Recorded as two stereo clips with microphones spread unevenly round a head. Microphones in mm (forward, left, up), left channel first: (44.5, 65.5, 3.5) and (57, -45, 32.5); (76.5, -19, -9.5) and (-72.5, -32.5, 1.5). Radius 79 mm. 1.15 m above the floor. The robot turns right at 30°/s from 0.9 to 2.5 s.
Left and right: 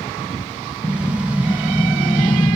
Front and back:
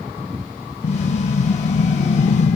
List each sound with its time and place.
0.8 s an explosion: 20° right; by 2.6 s 30° left